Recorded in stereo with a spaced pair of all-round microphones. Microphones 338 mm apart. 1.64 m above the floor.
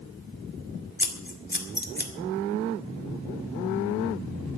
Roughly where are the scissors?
Left.